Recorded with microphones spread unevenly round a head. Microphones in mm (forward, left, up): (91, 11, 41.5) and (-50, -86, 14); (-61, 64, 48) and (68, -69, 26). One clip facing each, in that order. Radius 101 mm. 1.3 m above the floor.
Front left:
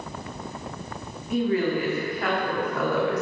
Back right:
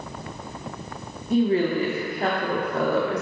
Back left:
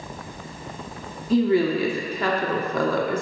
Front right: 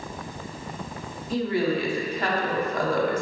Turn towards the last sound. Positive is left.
turn(degrees=150)